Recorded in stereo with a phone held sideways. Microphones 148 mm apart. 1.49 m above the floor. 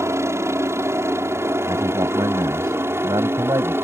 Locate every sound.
0.0 s a helicopter: 20° right (ahead or behind); by 3.8 s 15° right (ahead or behind)
1.7 s a man speaking: 25° right (ahead or behind)